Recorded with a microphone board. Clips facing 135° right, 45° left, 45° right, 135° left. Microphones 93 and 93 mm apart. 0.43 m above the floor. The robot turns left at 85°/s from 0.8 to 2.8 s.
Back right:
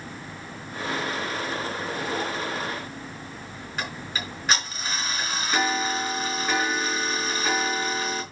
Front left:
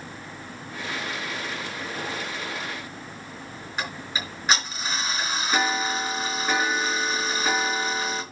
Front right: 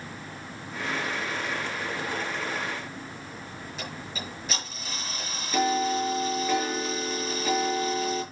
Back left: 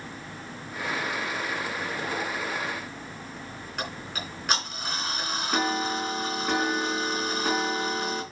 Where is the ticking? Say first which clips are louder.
Front left 1 dB, back left 3 dB; 125° left, 4.5 m.